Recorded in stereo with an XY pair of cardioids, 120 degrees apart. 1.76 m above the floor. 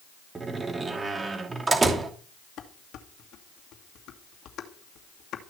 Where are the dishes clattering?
65° left, 2.5 m.